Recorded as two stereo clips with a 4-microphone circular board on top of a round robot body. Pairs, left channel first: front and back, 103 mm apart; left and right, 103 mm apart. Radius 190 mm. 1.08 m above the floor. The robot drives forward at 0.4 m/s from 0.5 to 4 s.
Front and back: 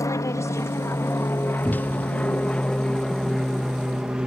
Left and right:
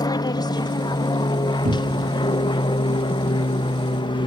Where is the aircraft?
50° left; by 4.3 s 100° left.